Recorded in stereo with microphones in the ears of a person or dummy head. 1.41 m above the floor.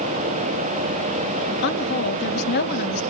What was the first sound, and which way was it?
A woman speaking, 60° left (ahead or behind).